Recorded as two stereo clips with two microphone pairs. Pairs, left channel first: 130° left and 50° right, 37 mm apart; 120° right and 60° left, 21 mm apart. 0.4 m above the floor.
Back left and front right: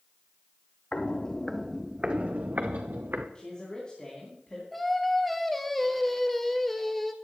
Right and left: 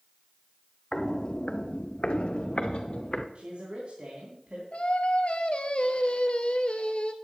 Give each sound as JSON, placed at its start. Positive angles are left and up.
{"t": 0.9, "sound": "footsteps", "azimuth_deg": 180, "distance_m": 1.0}
{"t": 3.4, "sound": "a man speaking", "azimuth_deg": 65, "distance_m": 3.5}
{"t": 4.7, "sound": "singing", "azimuth_deg": -145, "distance_m": 1.2}